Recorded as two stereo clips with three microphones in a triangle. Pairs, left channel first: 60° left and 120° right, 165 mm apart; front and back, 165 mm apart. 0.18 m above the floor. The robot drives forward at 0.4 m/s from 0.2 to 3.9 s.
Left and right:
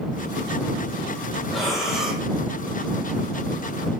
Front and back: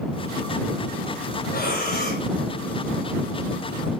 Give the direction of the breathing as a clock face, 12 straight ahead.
1 o'clock.